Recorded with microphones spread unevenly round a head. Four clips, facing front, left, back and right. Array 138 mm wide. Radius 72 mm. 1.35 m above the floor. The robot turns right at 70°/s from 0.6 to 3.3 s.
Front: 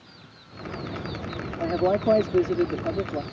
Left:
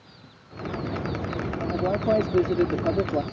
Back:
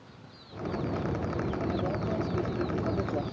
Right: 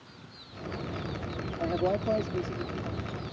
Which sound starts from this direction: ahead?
A man speaking, at 1.6 s.